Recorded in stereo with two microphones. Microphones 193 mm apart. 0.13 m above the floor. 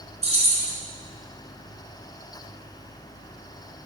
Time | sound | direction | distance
0.2 | keys jangling | 35° right (ahead or behind) | 1.3 m